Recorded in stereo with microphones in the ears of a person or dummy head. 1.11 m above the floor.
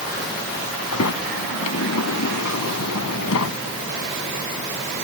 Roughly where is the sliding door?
Left.